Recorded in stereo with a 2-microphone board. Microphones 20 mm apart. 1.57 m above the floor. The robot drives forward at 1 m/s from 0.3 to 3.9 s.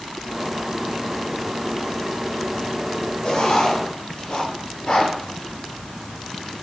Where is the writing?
55° left (ahead or behind), 6 m; by 5.1 s 50° left (ahead or behind), 6.5 m.